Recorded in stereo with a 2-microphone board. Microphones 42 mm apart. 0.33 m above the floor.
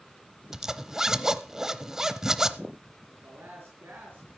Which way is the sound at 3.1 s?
60° right (ahead or behind).